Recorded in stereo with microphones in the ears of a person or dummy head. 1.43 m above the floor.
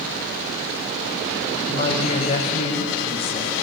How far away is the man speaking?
About 0.9 m.